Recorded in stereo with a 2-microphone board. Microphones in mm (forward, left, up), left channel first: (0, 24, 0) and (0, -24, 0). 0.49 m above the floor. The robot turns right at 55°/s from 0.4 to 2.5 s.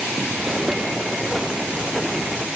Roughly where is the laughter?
I don't hear laughter.